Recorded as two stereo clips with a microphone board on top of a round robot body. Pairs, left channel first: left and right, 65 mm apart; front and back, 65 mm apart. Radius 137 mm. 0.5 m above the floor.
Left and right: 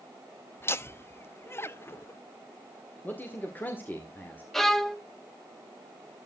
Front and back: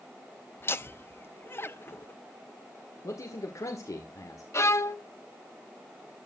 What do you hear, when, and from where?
0.6 s laughter: 45° left, 1.1 m
3.0 s a man speaking: 30° left, 1.9 m
4.5 s a violin: 5° left, 1.3 m